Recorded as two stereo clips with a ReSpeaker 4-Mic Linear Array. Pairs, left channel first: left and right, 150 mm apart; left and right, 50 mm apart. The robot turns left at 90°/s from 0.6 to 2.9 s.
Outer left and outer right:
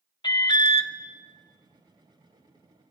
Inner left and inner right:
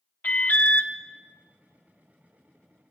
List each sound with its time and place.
0.2 s an alarm: 30° left (ahead or behind), 0.8 m; by 0.9 s 50° left (ahead or behind), 0.8 m